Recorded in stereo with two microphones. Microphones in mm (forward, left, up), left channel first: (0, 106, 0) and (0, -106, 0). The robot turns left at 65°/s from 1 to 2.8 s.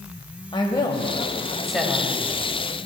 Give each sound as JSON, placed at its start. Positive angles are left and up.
{"t": 0.5, "sound": "a woman speaking", "azimuth_deg": 45, "distance_m": 1.0}